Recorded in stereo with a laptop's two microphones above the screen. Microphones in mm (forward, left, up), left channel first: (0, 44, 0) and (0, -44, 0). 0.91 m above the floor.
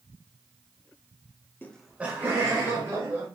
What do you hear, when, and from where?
1.6 s laughter: 20° left (ahead or behind), 0.5 m; by 3.3 s 30° right (ahead or behind), 2.5 m